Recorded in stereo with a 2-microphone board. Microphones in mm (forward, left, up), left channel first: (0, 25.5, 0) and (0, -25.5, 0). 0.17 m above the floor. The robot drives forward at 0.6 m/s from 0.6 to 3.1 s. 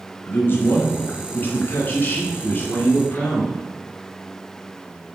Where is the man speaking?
45° left (ahead or behind), 2 m; by 3.6 s 35° left (ahead or behind), 2.5 m.